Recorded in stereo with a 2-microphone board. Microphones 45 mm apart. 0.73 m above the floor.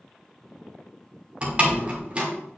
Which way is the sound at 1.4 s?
30° right (ahead or behind).